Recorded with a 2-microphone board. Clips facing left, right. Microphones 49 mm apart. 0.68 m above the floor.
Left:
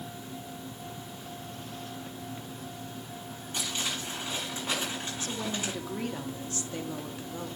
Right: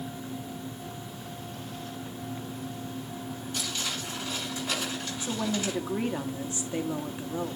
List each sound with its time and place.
3.5 s crumpling: 25° left (ahead or behind), 7 m
5.2 s a woman speaking: 20° right (ahead or behind), 1.1 m